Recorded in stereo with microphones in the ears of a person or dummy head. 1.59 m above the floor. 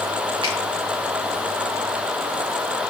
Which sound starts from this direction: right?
A finger snap, at 0.4 s.